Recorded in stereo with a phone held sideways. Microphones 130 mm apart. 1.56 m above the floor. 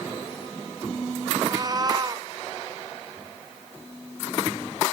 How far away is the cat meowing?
About 1.1 m.